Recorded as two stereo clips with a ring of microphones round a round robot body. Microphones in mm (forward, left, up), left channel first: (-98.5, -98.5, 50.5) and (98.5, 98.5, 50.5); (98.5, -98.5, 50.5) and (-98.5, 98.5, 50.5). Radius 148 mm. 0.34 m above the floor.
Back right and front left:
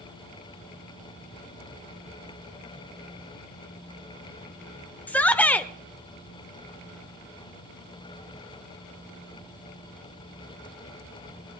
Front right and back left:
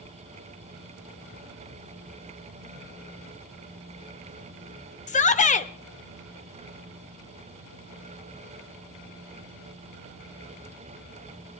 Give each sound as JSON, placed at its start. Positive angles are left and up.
{"t": 5.1, "sound": "a shout", "azimuth_deg": -60, "distance_m": 0.9}